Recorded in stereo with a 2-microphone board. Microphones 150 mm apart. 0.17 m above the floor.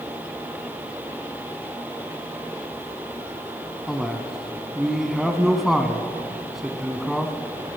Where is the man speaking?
Centre (ahead or behind), 1.0 m.